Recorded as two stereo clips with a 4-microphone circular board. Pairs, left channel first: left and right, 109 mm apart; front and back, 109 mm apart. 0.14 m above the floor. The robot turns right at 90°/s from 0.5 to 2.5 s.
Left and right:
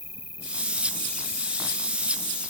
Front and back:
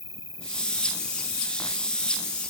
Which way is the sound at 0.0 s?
120° left.